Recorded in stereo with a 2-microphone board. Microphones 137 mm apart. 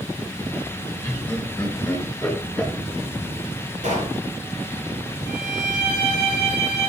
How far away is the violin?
About 2.5 m.